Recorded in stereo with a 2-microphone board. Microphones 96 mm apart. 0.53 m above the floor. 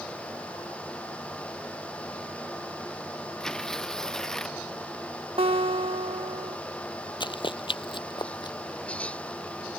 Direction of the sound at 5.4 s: 70° right (ahead or behind).